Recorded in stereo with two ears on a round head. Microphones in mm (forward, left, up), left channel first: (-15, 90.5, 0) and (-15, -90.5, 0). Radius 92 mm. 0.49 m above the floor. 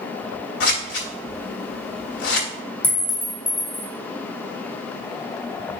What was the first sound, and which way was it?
Scissors, 55° left (ahead or behind).